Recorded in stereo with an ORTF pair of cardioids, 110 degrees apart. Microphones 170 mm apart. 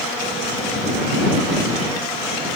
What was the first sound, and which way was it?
Only background noise.